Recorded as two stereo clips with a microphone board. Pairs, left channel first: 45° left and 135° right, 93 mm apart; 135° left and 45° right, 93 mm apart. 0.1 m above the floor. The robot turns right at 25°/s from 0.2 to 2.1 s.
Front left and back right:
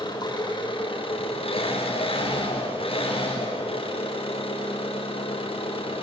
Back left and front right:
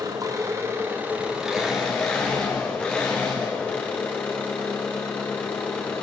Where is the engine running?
10° left, 7.5 m; by 6.0 s 55° left, 7.5 m.